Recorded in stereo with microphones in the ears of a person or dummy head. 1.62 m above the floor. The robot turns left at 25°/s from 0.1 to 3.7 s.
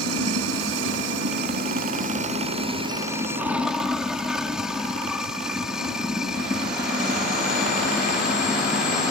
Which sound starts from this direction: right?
Running water, at 0.0 s.